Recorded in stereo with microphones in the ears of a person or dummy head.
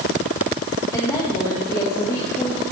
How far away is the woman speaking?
About 2 m.